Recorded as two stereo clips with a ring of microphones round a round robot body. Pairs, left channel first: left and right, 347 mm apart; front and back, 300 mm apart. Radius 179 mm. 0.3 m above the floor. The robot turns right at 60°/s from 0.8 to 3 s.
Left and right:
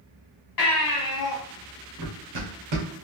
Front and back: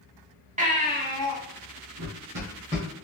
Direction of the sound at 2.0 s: 140° right.